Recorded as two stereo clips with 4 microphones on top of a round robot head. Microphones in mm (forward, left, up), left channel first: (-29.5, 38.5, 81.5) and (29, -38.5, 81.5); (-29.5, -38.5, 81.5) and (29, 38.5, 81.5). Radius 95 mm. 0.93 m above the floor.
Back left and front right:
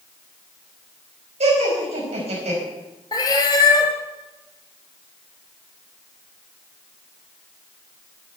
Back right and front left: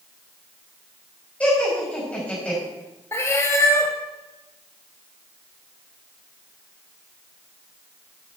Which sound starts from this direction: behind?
A cat meowing, at 3.1 s.